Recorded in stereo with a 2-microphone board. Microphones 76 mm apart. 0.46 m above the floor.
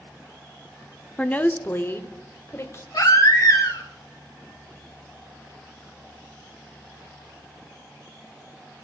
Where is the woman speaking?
15° left (ahead or behind), 0.7 m; by 2.8 s 35° left (ahead or behind), 1.8 m.